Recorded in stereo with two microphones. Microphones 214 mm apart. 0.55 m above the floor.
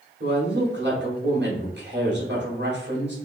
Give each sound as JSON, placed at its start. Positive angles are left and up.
{"t": 0.2, "sound": "a woman speaking", "side_deg": -55, "distance_m": 1.7}